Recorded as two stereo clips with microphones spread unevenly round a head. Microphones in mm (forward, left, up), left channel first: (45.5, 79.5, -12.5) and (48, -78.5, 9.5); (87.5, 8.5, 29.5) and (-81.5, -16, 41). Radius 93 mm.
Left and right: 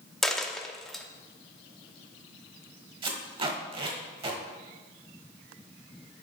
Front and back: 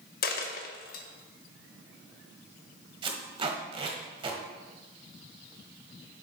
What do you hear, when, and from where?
0.2 s a dropped coin: 5° right, 0.8 m
3.0 s tape being pulled: 125° right, 1.2 m